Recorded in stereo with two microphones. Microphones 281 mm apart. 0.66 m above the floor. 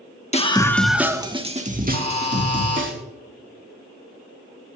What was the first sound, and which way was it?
A scream, 25° left (ahead or behind).